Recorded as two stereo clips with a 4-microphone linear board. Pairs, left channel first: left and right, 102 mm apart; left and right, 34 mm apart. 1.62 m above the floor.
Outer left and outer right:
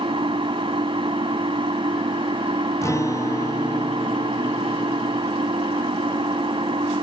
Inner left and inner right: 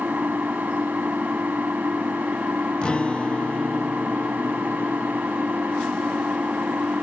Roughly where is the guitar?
Left.